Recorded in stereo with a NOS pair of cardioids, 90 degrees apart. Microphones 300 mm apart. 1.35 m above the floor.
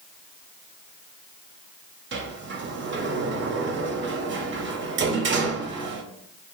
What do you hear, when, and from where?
2.1 s a sliding door: 35° right, 0.6 m